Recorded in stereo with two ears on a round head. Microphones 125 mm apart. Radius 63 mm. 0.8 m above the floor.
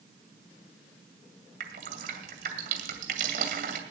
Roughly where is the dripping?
Right.